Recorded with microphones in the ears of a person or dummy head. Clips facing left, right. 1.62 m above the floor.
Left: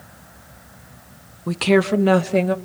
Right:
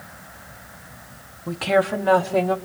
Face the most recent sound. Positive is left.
turn(degrees=25)  # may be behind; listen again after turning